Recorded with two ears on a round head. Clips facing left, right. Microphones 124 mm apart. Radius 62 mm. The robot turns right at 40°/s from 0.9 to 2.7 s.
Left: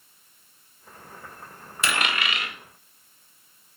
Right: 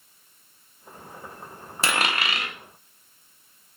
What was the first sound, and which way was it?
A dropped coin, 30° right (ahead or behind).